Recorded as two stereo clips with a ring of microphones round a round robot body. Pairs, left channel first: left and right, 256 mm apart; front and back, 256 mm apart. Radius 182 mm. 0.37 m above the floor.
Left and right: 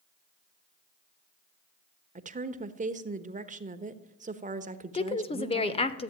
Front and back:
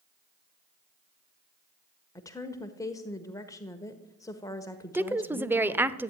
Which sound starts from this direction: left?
A woman speaking, at 4.9 s.